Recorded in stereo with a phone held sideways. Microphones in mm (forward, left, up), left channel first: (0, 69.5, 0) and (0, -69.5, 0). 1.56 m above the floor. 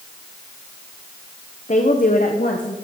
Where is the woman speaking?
55° left (ahead or behind), 0.9 m; by 2.8 s 70° left (ahead or behind), 1.4 m.